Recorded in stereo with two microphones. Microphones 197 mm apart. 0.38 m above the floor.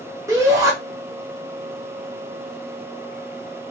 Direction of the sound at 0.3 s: 15° right (ahead or behind).